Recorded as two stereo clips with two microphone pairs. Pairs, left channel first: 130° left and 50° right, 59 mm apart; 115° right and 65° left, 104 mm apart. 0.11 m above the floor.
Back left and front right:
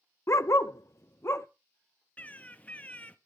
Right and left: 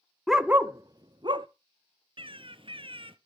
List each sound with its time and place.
0.3 s a dog barking: 150° left, 0.6 m; by 1.5 s 95° left, 1.1 m
2.2 s a bird: 75° left, 1.1 m